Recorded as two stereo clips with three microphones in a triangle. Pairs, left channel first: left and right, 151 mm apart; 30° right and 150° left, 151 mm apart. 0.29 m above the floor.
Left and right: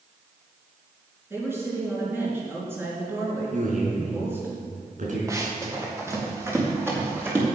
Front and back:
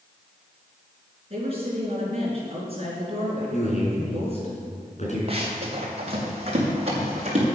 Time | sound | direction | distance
1.3 | a woman speaking | 165° right | 4.5 m
3.5 | a man speaking | 65° right | 3.5 m
5.3 | running footsteps | 160° right | 3 m